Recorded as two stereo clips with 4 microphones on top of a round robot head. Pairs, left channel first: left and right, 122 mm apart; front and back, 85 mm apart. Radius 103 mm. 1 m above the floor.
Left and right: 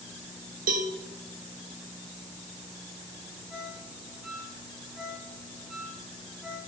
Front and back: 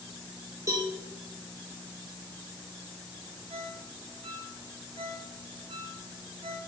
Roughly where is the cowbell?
Right.